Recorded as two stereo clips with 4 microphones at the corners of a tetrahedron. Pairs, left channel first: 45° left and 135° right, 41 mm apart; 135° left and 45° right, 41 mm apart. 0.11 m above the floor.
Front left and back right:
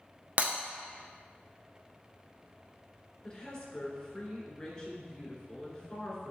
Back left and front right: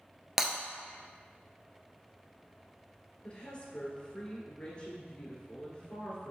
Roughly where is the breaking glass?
Behind right.